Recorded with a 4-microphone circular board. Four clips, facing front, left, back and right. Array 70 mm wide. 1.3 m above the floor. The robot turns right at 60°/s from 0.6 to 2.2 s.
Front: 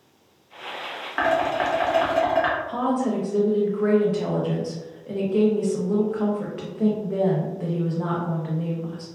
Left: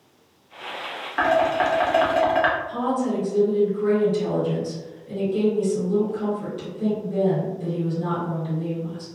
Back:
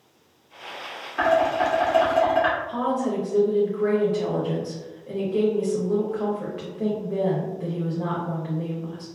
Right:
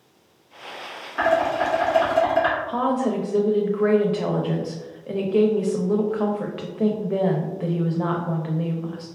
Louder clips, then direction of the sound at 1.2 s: Left 1 dB, back 2 dB; 20° left.